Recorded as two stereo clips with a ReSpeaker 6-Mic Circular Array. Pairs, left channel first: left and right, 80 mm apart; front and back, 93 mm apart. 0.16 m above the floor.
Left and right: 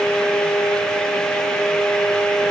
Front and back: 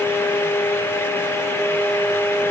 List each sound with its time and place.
Only background noise.